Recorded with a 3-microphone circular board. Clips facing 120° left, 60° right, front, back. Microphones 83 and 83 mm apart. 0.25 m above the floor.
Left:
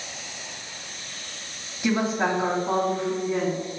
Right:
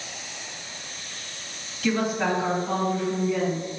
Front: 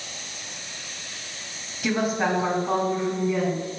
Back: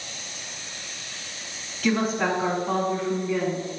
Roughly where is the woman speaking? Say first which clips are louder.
Left 1 dB, even; ahead left.